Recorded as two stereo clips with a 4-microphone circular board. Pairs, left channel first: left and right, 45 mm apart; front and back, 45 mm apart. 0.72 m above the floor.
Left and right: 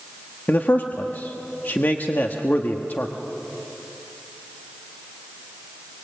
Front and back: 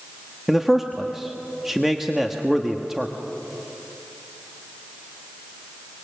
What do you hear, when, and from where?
0.5 s a man speaking: 100° left, 1.3 m